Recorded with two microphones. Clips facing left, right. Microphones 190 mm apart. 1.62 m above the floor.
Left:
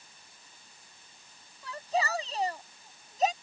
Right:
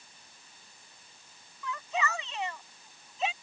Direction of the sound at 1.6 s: 35° left (ahead or behind).